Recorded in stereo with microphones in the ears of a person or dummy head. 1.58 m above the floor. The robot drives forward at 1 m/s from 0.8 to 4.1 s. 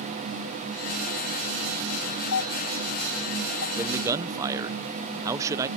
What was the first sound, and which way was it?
A doorbell, 85° left.